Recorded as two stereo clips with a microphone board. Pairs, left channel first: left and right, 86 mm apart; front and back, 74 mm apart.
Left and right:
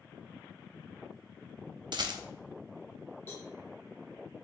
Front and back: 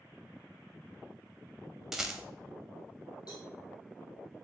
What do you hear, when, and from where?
1.9 s a rattle: 95° right, 0.6 m
3.3 s a cowbell: 20° left, 1.9 m